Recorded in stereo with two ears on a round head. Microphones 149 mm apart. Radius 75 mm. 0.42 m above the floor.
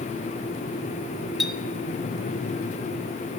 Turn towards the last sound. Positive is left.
turn(degrees=0)  # may be behind; listen again after turning